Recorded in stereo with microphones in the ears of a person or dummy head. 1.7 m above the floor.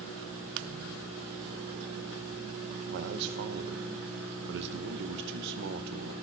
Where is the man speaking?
60° right (ahead or behind), 0.7 m.